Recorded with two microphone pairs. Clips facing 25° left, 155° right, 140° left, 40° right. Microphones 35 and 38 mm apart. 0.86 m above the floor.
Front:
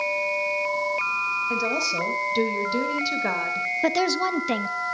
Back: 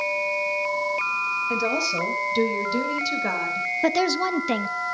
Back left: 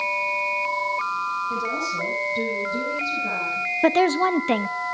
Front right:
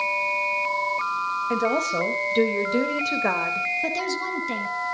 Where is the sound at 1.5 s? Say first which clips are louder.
Back 1 dB, front right 3 dB; 70° right, 4 m; by 3.7 s 50° right, 3.5 m.